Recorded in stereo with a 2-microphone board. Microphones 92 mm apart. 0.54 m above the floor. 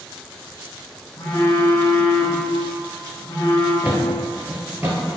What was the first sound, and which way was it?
A phone buzzing, 60° left (ahead or behind).